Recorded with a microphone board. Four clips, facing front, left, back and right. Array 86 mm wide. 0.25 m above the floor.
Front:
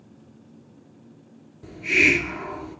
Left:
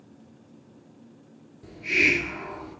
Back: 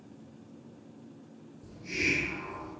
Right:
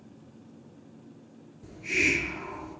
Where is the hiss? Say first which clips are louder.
Left 4 dB, front 11 dB; 15° left, 0.9 m.